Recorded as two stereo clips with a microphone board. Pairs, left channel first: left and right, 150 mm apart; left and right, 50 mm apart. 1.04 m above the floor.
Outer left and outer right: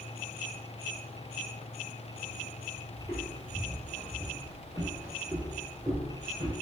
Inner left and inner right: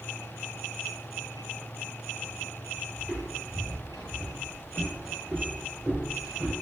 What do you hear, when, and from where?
3.0 s footsteps: 20° left (ahead or behind), 1.7 m; by 6.5 s 30° right (ahead or behind), 1.4 m